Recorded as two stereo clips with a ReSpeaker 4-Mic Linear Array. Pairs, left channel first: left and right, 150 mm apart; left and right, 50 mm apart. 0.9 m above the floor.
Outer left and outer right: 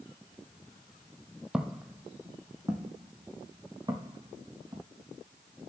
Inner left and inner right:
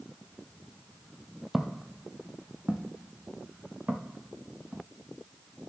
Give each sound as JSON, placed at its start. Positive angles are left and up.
{"t": 1.5, "sound": "footsteps", "side_deg": -5, "distance_m": 1.6}